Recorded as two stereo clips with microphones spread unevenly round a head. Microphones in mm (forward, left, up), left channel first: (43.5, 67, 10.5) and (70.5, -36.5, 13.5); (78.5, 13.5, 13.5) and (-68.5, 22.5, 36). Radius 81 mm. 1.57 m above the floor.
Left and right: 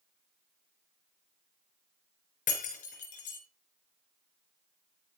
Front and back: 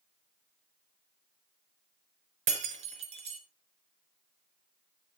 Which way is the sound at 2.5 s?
135° left.